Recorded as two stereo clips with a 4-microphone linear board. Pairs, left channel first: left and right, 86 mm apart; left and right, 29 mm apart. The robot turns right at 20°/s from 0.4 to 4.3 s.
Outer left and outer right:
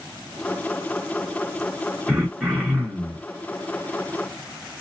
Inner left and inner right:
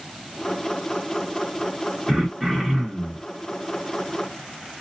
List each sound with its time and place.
2.1 s throat clearing: 5° right (ahead or behind), 1.2 m; by 3.3 s 5° left (ahead or behind), 1.2 m